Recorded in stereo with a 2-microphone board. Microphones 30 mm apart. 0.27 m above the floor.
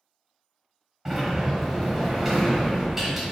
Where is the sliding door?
10° right (ahead or behind), 1.3 m.